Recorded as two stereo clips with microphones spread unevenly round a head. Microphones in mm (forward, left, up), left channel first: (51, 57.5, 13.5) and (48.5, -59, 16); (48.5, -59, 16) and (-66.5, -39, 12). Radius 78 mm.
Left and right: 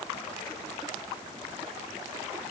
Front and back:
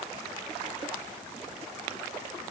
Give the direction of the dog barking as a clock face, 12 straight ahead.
I don't hear a dog barking.